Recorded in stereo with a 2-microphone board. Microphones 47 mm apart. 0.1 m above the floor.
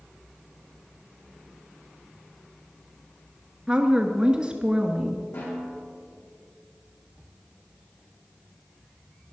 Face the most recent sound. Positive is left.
turn(degrees=75)  # may be behind; listen again after turning